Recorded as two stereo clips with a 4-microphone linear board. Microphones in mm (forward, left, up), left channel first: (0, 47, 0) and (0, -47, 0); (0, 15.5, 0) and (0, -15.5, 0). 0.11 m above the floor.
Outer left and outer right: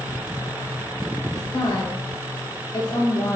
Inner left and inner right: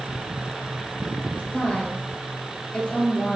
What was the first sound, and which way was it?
A woman speaking, 45° left (ahead or behind).